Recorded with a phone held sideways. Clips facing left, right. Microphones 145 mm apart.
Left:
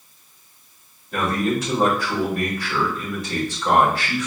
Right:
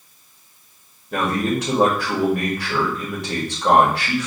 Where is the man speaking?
70° right (ahead or behind), 2.0 m.